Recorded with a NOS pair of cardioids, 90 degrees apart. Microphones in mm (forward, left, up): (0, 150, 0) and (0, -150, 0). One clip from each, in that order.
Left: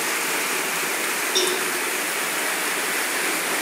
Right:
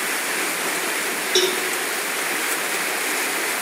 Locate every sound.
1.4 s a cowbell: 55° right, 4.5 m